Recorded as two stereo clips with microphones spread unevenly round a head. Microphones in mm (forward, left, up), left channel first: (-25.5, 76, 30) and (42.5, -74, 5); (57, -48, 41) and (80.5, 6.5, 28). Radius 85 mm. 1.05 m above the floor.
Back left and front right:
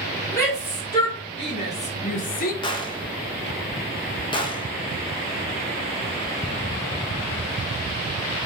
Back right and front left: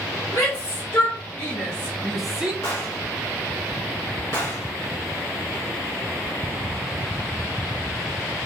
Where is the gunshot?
Straight behind, 0.6 m.